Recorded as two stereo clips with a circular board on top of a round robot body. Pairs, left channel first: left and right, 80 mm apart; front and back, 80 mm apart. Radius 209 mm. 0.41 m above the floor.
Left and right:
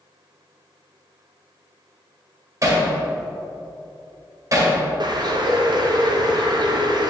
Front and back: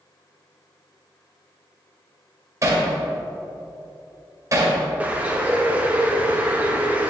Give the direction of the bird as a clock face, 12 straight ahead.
4 o'clock.